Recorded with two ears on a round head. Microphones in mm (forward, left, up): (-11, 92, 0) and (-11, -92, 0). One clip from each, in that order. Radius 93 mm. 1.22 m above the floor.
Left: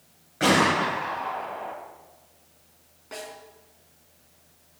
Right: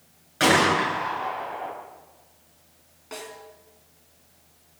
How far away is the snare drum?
About 4 m.